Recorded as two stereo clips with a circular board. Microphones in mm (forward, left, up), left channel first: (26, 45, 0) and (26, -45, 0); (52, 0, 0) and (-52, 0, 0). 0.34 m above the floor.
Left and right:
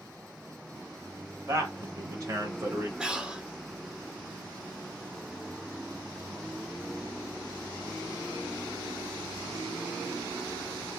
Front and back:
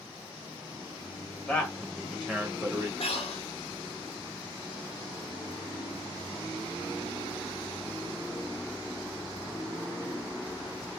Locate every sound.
1.5 s a man speaking: 75° right, 1.1 m; by 2.9 s 130° right, 1.3 m
3.0 s breathing: 10° right, 0.7 m